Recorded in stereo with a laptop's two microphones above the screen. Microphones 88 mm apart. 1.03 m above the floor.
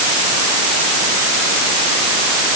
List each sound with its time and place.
Only background noise.